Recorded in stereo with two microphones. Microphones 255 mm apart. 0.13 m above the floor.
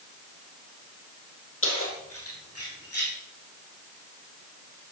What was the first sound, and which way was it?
Keys jangling, 60° left (ahead or behind).